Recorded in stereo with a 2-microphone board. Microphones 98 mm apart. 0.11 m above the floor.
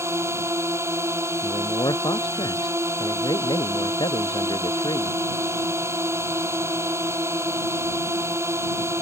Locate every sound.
0.0 s a drone: 25° right (ahead or behind)
1.4 s a man speaking: 50° left (ahead or behind)